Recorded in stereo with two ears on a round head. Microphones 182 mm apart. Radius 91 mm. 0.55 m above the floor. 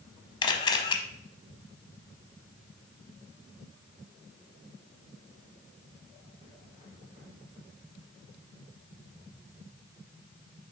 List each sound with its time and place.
0.4 s a camera shutter: 25° left (ahead or behind), 0.7 m